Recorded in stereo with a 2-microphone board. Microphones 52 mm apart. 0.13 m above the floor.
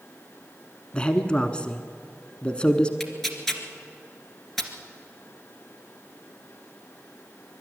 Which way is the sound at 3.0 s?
5° left (ahead or behind).